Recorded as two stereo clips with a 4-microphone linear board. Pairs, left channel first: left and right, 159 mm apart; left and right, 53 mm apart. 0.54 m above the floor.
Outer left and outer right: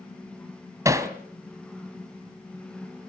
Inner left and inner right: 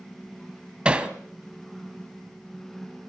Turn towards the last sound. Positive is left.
turn(degrees=-20)  # may be behind; listen again after turning